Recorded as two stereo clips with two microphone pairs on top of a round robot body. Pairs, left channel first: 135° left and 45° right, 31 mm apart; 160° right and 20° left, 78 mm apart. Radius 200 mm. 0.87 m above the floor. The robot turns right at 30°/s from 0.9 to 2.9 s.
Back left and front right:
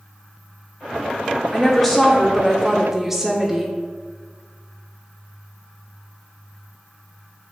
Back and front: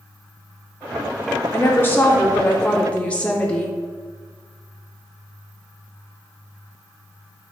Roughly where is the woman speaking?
Behind right.